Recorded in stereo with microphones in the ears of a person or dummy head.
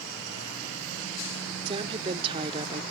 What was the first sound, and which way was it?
A woman speaking, 30° right (ahead or behind).